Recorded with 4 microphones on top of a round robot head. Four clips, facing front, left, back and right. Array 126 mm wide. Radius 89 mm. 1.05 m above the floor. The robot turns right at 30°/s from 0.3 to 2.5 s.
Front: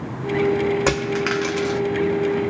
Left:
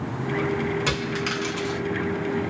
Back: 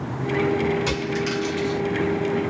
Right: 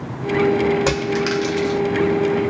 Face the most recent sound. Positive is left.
turn(degrees=20)